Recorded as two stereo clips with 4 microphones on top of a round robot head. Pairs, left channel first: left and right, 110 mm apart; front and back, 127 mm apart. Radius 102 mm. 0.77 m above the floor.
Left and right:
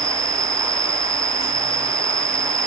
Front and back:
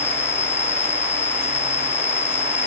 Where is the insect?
55° right.